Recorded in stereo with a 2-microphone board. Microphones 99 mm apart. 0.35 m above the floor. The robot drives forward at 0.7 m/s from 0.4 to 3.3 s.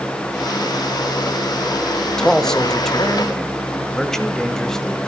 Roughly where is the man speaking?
Centre.